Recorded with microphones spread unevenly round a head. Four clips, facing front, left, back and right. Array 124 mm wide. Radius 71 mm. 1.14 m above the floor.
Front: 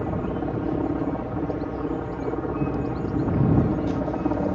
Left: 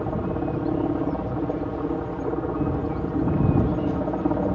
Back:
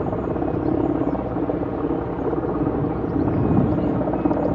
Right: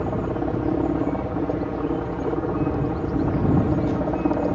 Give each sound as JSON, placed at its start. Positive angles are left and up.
{"t": 0.0, "sound": "a helicopter", "azimuth_deg": -165}